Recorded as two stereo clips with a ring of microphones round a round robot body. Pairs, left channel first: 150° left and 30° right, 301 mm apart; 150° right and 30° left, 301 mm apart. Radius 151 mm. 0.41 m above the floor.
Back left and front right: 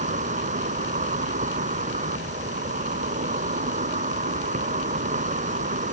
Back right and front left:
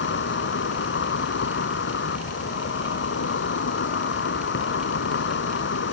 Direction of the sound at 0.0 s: 95° right.